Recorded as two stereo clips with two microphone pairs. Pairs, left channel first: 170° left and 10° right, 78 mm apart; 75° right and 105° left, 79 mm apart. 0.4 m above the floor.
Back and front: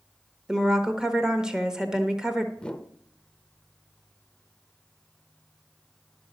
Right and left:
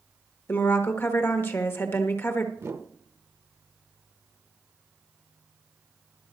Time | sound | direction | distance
0.5 | a woman speaking | 80° right | 1.1 m
2.6 | a whoosh | 100° left | 0.7 m